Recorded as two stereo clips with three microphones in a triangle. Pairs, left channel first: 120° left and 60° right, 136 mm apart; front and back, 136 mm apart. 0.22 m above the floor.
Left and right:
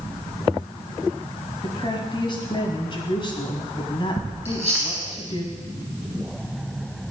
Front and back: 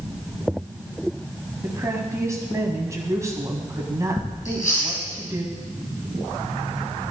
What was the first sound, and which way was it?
A woman speaking, 130° left.